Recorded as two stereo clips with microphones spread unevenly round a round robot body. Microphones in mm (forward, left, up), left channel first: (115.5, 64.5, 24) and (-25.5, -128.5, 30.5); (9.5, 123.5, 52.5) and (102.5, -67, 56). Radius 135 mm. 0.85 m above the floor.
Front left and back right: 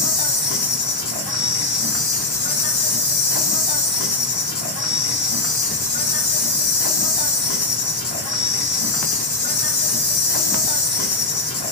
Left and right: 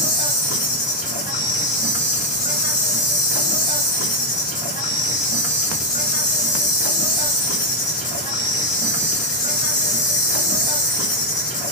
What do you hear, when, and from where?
0.0 s an insect: 60° left, 1.1 m